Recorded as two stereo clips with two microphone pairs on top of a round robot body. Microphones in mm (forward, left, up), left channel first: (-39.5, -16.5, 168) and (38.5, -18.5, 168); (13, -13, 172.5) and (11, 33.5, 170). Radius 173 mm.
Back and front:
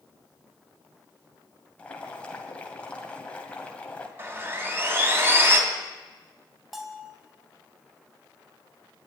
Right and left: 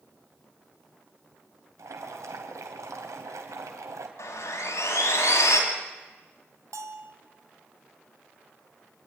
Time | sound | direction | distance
1.8 | boiling | 105° left | 2 m
4.2 | sawing | 65° right | 3 m
6.7 | a bell | 85° left | 2 m